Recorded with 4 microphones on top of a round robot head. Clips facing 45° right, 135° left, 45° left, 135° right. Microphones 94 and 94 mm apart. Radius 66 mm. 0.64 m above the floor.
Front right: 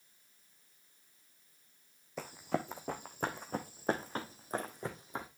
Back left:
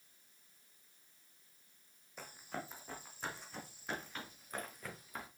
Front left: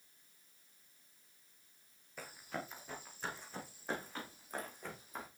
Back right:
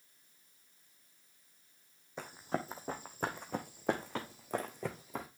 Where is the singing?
No singing in this recording.